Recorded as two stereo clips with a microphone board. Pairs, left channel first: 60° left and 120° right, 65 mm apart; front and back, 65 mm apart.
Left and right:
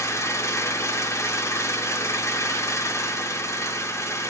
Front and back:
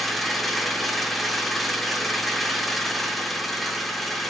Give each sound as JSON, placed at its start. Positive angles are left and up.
{"t": 0.0, "sound": "an engine running", "azimuth_deg": 90, "distance_m": 0.7}